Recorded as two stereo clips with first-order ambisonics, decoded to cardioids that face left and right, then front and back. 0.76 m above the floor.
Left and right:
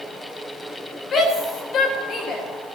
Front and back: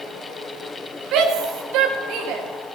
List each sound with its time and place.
1.1 s a shout: 150° left, 2.5 m